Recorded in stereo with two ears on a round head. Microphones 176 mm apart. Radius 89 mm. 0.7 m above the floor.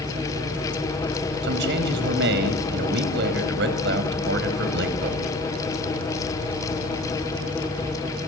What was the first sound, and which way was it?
A man speaking, 65° right (ahead or behind).